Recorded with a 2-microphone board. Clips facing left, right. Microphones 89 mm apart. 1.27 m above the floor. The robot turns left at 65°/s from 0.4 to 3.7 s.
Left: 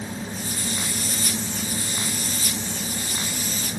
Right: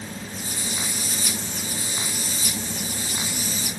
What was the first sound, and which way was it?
Only background noise.